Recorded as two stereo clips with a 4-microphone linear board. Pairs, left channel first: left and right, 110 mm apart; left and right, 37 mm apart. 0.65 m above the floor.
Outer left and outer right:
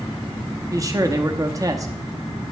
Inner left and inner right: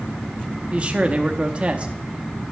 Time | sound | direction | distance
0.7 | a man speaking | 30° right (ahead or behind) | 0.8 m